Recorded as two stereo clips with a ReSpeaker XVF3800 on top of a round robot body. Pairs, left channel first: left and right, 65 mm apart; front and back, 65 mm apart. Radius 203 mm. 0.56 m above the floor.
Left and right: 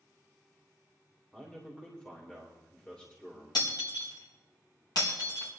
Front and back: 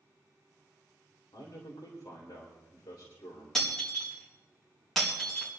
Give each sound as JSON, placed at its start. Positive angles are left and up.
{"t": 1.3, "sound": "a man speaking", "azimuth_deg": 15, "distance_m": 4.0}
{"t": 3.5, "sound": "breaking glass", "azimuth_deg": 85, "distance_m": 4.0}